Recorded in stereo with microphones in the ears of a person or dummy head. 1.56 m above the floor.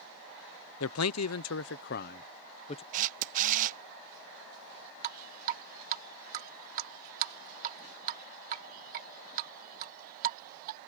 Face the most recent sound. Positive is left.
turn(degrees=-50)  # may be behind; listen again after turning